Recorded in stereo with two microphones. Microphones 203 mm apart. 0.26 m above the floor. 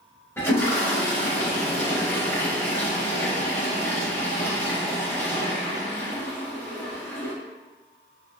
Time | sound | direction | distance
0.4 | a toilet flushing | 10° left (ahead or behind) | 1.0 m